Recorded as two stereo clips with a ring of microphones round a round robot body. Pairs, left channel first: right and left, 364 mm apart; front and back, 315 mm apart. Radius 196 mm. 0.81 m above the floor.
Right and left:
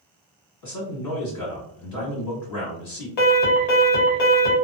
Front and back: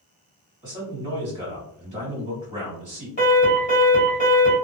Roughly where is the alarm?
Right.